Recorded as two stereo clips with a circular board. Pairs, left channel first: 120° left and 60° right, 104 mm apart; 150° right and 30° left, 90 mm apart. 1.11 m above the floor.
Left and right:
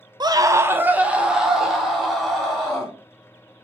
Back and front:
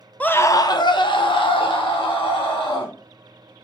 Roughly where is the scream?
Right.